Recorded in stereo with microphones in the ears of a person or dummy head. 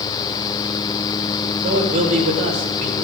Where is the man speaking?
40° right (ahead or behind), 6 m.